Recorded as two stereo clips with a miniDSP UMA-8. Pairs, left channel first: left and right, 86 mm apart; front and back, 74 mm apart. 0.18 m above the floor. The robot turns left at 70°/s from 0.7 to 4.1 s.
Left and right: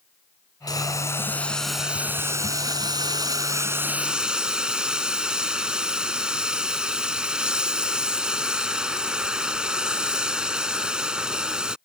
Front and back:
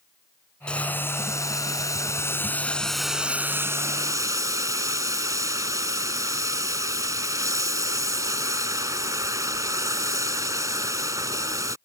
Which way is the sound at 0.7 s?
70° left.